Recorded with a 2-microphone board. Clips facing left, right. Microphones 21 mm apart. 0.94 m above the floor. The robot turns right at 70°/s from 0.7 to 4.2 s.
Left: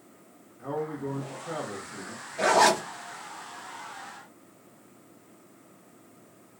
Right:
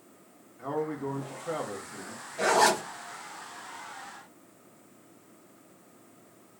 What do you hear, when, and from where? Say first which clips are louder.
0.6 s a man speaking: right 1 dB; 110° right, 1.5 m; by 2.2 s straight ahead, 1.5 m
2.4 s a zipper: left 2 dB; 10° left, 1.0 m; by 2.8 s 40° left, 1.0 m